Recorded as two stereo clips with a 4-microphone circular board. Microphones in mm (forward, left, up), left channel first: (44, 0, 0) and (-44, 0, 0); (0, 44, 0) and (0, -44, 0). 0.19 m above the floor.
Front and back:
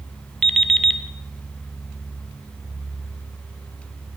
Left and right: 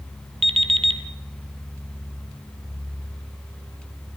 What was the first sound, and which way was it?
An alarm clock, 85° right.